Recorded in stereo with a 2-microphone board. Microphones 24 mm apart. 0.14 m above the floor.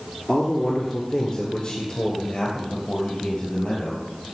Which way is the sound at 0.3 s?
25° left (ahead or behind).